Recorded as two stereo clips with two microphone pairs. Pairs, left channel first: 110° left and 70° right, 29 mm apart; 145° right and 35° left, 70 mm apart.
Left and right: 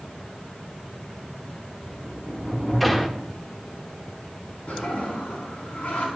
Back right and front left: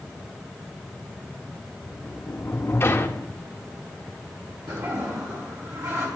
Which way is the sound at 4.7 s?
70° left.